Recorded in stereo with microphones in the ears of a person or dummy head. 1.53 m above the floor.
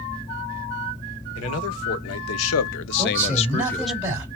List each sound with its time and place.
1.4 s a man speaking: 80° left, 1.6 m; by 4.0 s 5° right (ahead or behind), 0.6 m
3.0 s a man speaking: 10° right (ahead or behind), 3 m